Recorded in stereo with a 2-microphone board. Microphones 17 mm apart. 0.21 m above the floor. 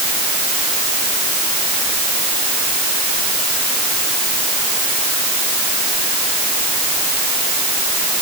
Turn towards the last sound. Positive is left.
No sound to turn to.